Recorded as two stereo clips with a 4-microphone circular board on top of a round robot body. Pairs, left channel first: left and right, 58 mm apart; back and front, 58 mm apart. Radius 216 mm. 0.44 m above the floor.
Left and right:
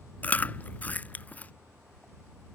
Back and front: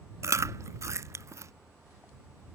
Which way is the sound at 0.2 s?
30° left.